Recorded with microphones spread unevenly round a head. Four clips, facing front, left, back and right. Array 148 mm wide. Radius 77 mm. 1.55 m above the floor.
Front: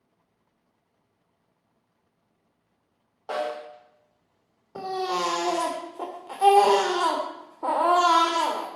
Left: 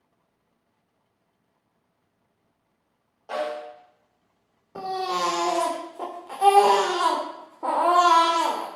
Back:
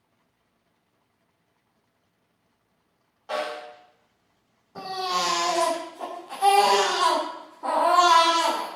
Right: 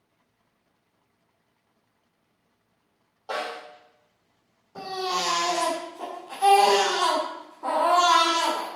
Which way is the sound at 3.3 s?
5° right.